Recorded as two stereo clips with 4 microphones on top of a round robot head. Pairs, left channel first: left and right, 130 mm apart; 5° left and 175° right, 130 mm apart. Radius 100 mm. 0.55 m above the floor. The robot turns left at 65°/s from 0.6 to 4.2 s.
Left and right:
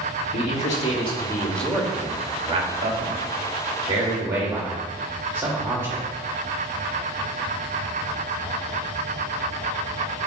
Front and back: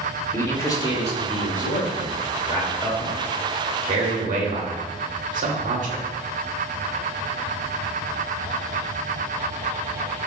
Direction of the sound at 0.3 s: 75° left.